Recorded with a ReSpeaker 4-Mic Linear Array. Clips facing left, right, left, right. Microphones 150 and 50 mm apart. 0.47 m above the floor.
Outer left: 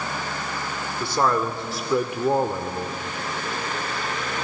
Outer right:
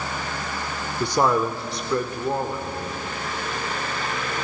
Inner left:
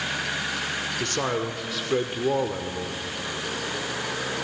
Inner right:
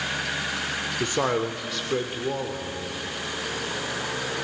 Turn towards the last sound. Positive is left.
turn(degrees=40)  # may be behind; listen again after turning